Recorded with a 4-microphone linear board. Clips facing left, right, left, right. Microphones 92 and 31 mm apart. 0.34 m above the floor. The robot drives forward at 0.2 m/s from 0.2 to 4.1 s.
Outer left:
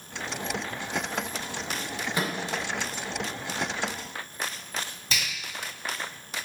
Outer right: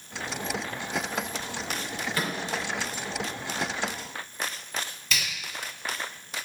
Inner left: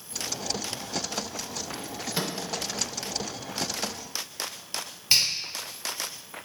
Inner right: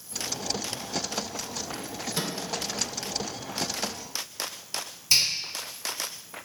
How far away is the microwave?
About 0.6 m.